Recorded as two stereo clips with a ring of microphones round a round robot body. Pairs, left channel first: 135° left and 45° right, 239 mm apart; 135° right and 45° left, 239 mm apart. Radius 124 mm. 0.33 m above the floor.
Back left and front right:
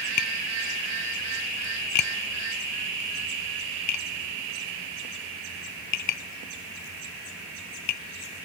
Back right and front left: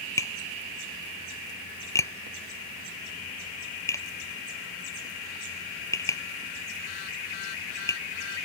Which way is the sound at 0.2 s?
145° left.